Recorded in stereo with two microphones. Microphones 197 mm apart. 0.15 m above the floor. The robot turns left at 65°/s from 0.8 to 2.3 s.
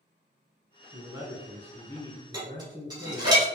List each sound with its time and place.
0.9 s a man speaking: 135° right, 1.3 m; by 3.3 s 135° left, 1.3 m
2.3 s dishes clattering: 20° right (ahead or behind), 1.7 m